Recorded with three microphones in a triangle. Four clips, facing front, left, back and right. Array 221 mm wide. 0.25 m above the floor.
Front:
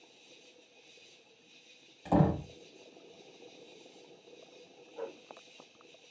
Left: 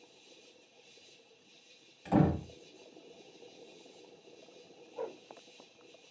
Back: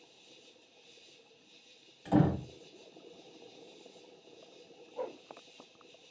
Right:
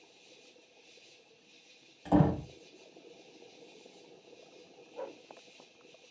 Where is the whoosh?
160° left, 0.7 m.